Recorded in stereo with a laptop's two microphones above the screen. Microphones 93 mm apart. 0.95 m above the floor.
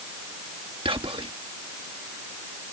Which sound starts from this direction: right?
Whispering, at 0.8 s.